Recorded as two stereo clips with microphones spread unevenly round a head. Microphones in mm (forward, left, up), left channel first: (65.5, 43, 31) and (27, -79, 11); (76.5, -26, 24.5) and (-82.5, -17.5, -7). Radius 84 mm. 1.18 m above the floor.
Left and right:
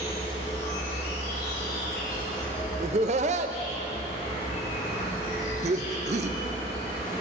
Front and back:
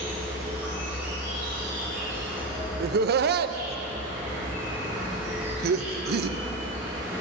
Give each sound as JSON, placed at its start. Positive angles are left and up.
{"t": 0.0, "sound": "an insect", "azimuth_deg": 95, "distance_m": 3.5}
{"t": 2.8, "sound": "laughter", "azimuth_deg": -160, "distance_m": 0.6}